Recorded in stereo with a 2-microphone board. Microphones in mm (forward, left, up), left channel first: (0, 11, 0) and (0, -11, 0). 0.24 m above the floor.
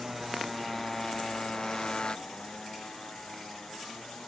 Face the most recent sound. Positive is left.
turn(degrees=60)  # may be behind; listen again after turning